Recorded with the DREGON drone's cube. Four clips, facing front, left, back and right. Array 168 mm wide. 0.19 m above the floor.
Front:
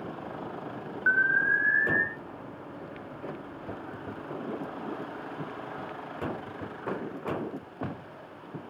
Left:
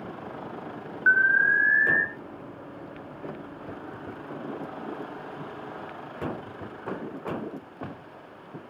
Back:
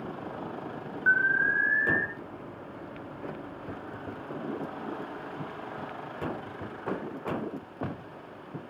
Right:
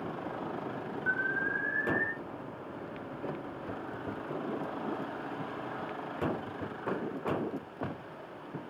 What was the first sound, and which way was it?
An alarm, 75° left.